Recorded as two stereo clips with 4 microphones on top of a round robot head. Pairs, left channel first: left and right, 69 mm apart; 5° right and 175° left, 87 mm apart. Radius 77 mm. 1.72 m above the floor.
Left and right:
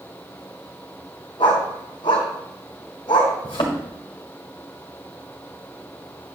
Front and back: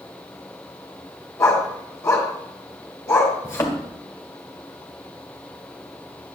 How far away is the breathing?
I don't hear breathing.